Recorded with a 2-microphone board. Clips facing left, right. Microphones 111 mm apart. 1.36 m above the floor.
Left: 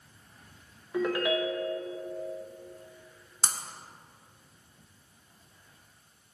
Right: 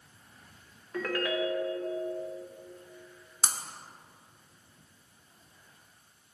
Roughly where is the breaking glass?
Centre.